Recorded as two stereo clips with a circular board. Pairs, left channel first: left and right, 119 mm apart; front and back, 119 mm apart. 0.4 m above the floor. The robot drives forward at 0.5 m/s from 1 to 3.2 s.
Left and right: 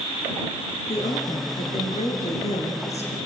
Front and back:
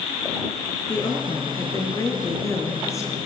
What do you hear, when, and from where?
0.9 s a woman speaking: 55° left, 5.5 m; by 3.2 s 65° left, 5 m